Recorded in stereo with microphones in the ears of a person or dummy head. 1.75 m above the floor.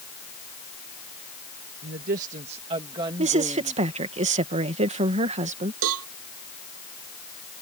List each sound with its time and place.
1.8 s a woman speaking: 50° right (ahead or behind); by 3.8 s 15° right (ahead or behind)
3.2 s a woman speaking: 35° right (ahead or behind)
5.8 s a cowbell: 75° right (ahead or behind)